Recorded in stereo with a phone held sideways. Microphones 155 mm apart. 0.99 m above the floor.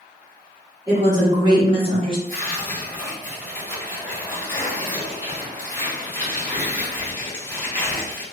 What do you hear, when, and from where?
0.9 s a woman speaking: 20° right (ahead or behind), 1.7 m; by 2.2 s 30° right (ahead or behind), 0.6 m
2.3 s tearing paper: 20° left (ahead or behind), 1.6 m